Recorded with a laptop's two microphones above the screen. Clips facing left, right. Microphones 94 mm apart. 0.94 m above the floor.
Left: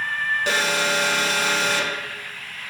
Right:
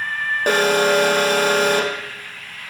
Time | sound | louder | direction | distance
0.5 | an alarm | right 10 dB | 50° right (ahead or behind) | 0.9 m